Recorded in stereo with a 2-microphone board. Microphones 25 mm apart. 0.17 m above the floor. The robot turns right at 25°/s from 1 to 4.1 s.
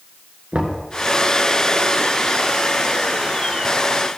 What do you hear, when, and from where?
0.5 s knocking: 45° right (ahead or behind), 1.5 m